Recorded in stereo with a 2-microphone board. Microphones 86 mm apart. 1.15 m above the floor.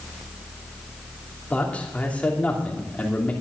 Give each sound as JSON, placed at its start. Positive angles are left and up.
{"t": 1.5, "sound": "a man speaking", "side_deg": 15, "distance_m": 2.5}